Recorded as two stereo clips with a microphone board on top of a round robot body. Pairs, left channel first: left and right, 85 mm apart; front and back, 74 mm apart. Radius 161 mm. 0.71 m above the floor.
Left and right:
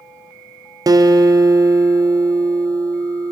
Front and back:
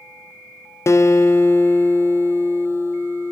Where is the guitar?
50° right, 0.5 m.